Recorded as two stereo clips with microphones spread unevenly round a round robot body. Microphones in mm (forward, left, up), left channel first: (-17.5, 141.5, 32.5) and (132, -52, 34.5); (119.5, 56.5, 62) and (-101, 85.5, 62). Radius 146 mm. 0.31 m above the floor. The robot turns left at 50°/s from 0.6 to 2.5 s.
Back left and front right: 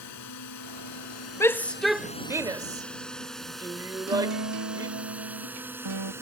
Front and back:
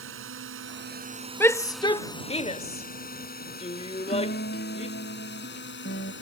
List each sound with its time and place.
0.0 s a drone: 150° left; by 6.2 s 25° left
1.4 s a shout: 60° left; by 5.0 s 5° left
4.1 s a guitar: 65° right